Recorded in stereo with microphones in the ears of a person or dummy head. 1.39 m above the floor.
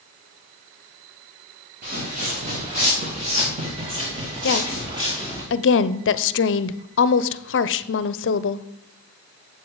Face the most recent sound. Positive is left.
turn(degrees=60)  # may be behind; listen again after turning